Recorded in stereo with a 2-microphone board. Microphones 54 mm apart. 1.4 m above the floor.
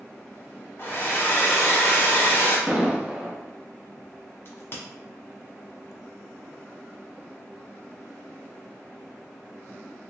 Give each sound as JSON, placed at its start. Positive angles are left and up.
{"t": 0.8, "sound": "a hair dryer", "side_deg": 45, "distance_m": 1.3}
{"t": 2.7, "sound": "an explosion", "side_deg": -15, "distance_m": 0.8}
{"t": 4.5, "sound": "a crack", "side_deg": 45, "distance_m": 1.3}